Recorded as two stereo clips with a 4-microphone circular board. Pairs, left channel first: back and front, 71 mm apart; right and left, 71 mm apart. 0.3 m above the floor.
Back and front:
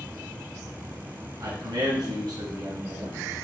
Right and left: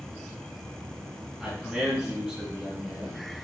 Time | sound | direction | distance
1.4 | a man speaking | 5° left | 3.5 m